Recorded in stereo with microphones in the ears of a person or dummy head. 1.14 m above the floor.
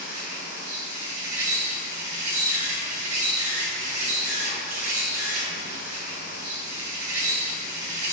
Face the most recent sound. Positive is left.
turn(degrees=-45)  # may be behind; listen again after turning